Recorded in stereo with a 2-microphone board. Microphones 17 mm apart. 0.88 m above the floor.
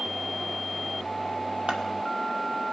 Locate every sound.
1.7 s scissors: 85° right, 1.5 m